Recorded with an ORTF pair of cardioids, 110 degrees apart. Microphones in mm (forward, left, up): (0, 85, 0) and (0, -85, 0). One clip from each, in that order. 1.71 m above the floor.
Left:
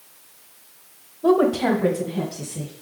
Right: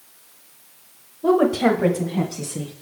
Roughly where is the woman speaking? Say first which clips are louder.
Right 1 dB; ahead.